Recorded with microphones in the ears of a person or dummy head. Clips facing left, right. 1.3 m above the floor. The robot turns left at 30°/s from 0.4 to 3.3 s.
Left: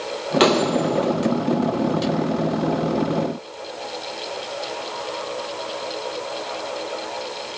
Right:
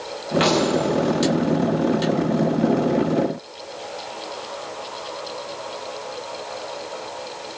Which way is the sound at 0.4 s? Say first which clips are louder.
Left 2 dB; 70° left (ahead or behind).